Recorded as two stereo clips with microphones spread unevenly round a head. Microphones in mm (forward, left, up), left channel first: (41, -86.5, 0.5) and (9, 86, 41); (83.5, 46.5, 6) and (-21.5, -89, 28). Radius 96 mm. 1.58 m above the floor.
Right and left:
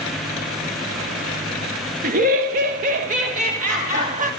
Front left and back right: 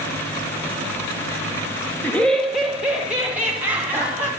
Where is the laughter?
135° left, 0.8 m; by 4.3 s 150° left, 3 m.